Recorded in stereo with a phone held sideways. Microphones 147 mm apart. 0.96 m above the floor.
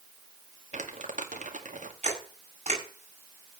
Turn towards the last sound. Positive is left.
turn(degrees=-50)  # may be behind; listen again after turning